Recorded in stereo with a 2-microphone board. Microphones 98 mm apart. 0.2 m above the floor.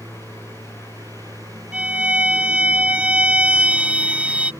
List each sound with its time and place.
0.0 s a lawn mower: 40° right (ahead or behind)
1.7 s a violin: 15° right (ahead or behind)